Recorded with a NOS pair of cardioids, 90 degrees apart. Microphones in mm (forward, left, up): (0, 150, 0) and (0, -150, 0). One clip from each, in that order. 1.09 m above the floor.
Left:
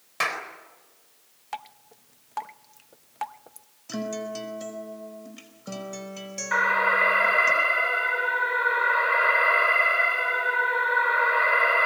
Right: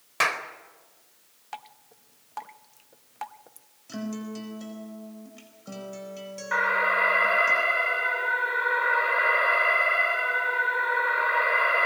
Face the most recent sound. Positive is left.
turn(degrees=15)